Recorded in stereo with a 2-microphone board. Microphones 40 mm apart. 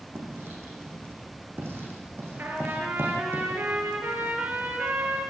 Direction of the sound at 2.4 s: 70° right (ahead or behind).